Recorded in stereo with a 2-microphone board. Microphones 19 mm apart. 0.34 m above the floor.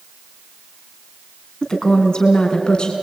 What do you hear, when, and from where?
1.6 s a woman speaking: 35° left (ahead or behind), 4 m; by 2.9 s 45° left (ahead or behind), 4 m